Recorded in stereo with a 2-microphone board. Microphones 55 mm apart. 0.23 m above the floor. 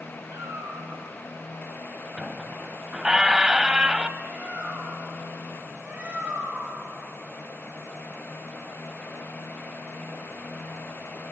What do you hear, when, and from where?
0.3 s a cat meowing: 65° right (ahead or behind), 7.5 m
2.2 s a squeak: 15° right (ahead or behind), 0.7 m
4.2 s a bird: 20° right (ahead or behind), 5.5 m